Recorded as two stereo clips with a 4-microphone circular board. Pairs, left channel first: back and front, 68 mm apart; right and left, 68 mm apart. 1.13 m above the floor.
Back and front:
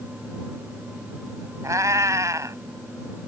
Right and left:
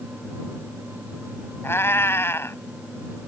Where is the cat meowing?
35° right.